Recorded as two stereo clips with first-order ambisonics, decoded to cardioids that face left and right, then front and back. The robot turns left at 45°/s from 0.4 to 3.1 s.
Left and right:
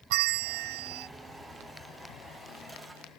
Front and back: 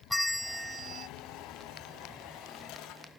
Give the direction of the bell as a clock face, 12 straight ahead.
3 o'clock.